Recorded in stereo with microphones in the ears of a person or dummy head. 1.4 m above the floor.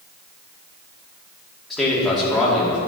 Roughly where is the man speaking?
Centre.